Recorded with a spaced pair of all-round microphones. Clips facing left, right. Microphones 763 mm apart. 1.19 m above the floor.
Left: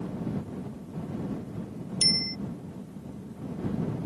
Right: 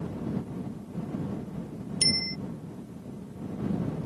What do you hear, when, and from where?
2.0 s a bicycle bell: 70° left (ahead or behind)